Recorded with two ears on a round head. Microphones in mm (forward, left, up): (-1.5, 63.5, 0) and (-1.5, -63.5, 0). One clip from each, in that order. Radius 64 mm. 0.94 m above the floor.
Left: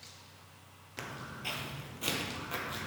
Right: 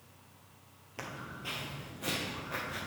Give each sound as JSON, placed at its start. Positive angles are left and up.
{"t": 1.0, "sound": "footsteps", "side_deg": 25, "distance_m": 1.4}